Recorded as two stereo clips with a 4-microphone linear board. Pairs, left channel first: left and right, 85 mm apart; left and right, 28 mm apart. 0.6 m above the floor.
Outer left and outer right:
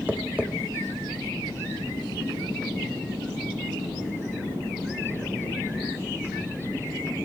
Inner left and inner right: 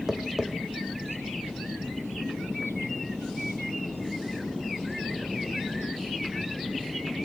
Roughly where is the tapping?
Centre.